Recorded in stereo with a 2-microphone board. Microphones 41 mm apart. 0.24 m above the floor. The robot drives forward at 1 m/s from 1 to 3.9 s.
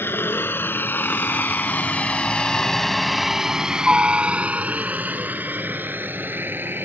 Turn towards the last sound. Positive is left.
turn(degrees=-55)  # may be behind; listen again after turning